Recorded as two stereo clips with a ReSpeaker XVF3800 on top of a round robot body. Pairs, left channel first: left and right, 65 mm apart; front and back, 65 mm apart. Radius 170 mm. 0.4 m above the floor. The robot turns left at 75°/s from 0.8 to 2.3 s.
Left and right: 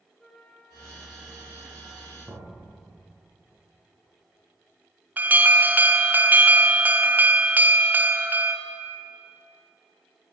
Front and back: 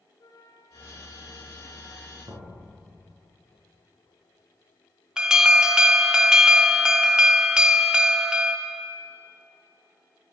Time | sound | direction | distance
0.2 | a flute | 5° left | 3 m
2.2 | knocking | 165° right | 4.5 m
5.2 | an alarm | 115° right | 1.5 m